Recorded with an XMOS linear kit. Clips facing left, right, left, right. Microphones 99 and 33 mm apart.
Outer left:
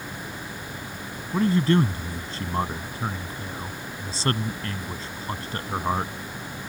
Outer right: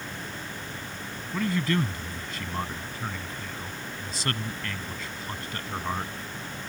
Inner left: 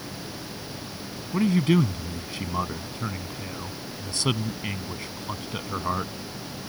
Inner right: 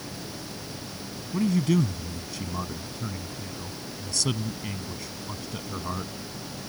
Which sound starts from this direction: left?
A man speaking, at 1.3 s.